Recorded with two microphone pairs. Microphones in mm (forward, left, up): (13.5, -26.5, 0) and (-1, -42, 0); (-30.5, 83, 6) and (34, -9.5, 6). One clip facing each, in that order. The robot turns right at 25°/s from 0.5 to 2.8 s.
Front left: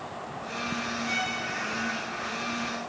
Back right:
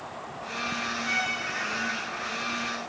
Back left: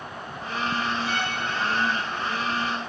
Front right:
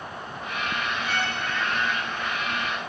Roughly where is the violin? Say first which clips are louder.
Back right 2 dB, even; behind.